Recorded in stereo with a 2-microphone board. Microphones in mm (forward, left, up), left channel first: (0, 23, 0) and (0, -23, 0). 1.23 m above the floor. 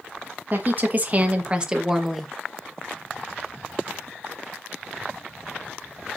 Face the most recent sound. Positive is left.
turn(degrees=0)  # may be behind; listen again after turning